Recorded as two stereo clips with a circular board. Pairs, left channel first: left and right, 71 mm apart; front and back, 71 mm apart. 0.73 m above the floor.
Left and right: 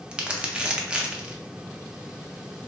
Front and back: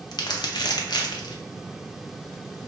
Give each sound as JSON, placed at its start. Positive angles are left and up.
{"t": 0.1, "sound": "crumpling", "azimuth_deg": -15, "distance_m": 0.5}